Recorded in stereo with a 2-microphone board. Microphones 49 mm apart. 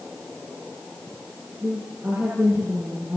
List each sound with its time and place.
1.6 s a woman speaking: 50° right (ahead or behind), 9 m